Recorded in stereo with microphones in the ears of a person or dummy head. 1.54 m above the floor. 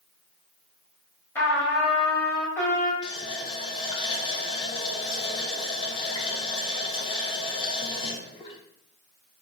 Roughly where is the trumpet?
Centre.